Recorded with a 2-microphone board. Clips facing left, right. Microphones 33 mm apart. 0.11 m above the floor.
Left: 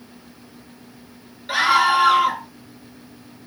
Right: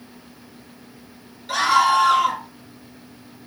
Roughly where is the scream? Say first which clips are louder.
Even; left.